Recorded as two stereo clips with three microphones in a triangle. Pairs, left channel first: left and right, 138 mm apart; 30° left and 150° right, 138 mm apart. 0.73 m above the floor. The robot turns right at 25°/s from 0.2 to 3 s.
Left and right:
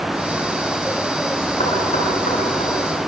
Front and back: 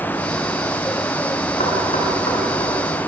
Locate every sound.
1.6 s knocking: 55° left, 8 m; by 2.7 s 85° left, 8 m